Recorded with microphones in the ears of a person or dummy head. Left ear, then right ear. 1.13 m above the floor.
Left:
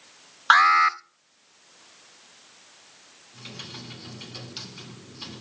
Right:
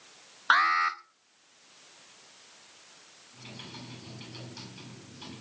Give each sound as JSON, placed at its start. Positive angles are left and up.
{"t": 0.5, "sound": "an alarm", "side_deg": 10, "distance_m": 0.7}
{"t": 3.3, "sound": "typing on a keyboard", "side_deg": 15, "distance_m": 7.5}